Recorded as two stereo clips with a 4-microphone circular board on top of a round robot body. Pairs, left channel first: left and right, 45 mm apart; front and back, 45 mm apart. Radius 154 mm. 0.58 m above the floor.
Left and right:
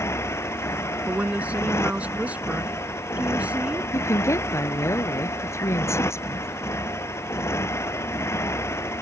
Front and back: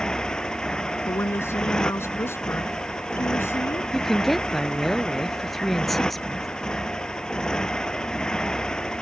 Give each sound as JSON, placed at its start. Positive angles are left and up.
{"t": 0.0, "sound": "a motorcycle", "azimuth_deg": 75}
{"t": 1.1, "sound": "a woman speaking", "azimuth_deg": -30}
{"t": 3.9, "sound": "a woman speaking", "azimuth_deg": 85}